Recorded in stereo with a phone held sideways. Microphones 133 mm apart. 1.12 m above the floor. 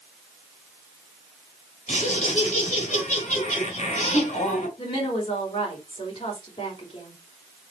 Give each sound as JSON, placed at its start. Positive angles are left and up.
{"t": 1.9, "sound": "laughter", "side_deg": 65, "distance_m": 6.0}
{"t": 4.8, "sound": "a woman speaking", "side_deg": 45, "distance_m": 5.0}